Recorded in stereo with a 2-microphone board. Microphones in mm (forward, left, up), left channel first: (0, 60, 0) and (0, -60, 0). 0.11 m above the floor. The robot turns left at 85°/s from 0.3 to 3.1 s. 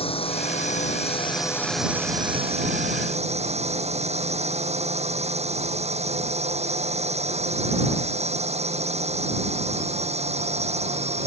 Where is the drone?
125° left; by 11.3 s 110° right.